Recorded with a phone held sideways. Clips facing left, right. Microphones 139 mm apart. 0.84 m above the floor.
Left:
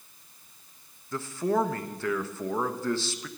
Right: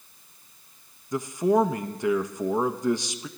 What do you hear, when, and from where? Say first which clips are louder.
1.1 s a man speaking: right 5 dB; 15° right (ahead or behind), 0.7 m